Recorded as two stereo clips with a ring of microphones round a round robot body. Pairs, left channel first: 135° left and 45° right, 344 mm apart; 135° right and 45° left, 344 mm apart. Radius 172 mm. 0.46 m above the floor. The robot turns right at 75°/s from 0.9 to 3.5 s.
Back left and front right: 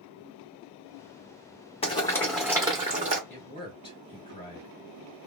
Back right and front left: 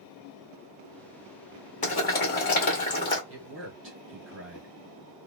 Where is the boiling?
175° right, 1.4 m; by 3.2 s 70° right, 1.4 m.